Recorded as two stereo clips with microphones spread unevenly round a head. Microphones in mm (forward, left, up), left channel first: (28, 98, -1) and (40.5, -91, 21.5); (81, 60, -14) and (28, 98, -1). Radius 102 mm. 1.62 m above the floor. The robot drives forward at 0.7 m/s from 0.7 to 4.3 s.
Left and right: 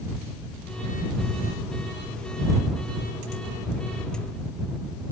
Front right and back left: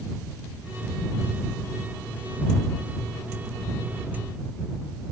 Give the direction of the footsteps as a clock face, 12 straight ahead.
I don't hear footsteps.